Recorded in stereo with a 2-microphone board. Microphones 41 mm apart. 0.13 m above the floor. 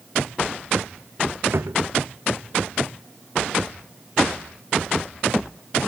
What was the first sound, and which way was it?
A drawer, 65° right (ahead or behind).